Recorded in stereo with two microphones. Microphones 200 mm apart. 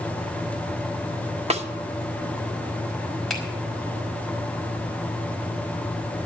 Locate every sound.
1.5 s a snare drum: 30° right (ahead or behind), 1.0 m
3.3 s a finger snap: centre (ahead or behind), 4.5 m